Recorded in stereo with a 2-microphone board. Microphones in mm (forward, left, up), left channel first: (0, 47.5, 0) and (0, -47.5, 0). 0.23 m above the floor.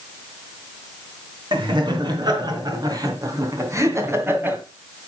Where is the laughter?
50° right (ahead or behind), 3.5 m; by 4.6 s 20° right (ahead or behind), 1.9 m.